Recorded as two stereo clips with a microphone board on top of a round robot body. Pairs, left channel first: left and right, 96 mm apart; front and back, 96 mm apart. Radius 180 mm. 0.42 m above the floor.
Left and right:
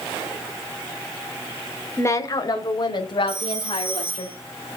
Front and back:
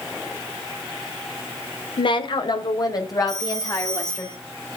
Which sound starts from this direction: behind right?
A phone ringing, at 3.3 s.